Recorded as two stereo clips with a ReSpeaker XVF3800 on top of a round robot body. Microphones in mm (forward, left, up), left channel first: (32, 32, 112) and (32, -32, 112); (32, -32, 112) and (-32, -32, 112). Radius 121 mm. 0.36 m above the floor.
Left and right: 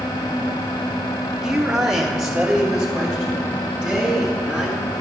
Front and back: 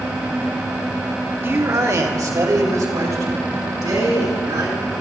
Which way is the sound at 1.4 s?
165° right.